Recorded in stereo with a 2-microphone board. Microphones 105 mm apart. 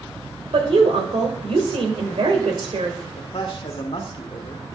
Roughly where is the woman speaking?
Right.